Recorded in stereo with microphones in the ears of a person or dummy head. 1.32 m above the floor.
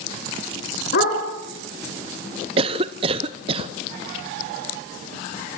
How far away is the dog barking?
About 4.5 m.